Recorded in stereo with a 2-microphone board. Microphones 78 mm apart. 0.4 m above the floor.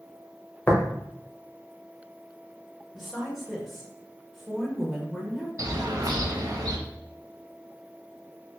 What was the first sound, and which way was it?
Tapping, 20° left (ahead or behind).